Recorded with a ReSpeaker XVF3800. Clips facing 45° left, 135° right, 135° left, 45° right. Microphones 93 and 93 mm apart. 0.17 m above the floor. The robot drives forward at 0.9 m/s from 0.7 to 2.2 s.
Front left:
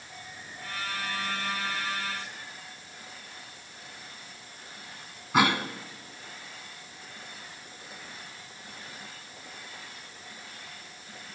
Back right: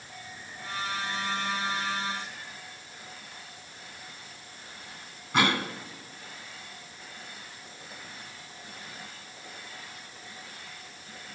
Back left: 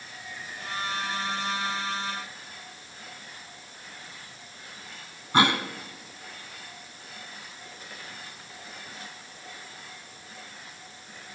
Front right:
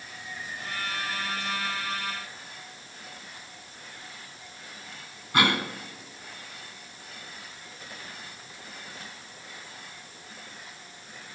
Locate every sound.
5.3 s a cough: 120° left, 1.9 m